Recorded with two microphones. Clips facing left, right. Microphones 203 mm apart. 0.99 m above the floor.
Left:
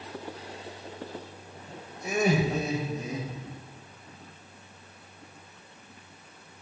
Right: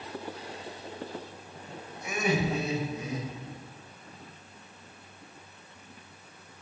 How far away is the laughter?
About 1.0 m.